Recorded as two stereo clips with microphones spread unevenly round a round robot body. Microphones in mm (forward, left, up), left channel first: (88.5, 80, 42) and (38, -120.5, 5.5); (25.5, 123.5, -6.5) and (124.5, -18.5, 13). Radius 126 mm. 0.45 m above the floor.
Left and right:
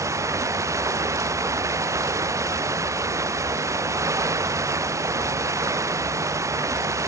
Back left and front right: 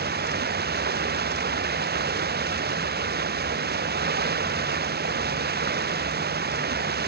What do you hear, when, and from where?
0.0 s running water: 30° right